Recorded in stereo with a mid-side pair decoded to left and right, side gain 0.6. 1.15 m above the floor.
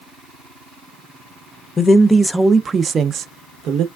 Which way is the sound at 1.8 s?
30° left.